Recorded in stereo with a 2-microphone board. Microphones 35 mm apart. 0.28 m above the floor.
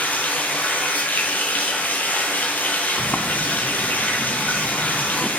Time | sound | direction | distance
0.0 | running water | 65° left (ahead or behind) | 1.3 m
3.0 | a sliding door | 45° left (ahead or behind) | 0.5 m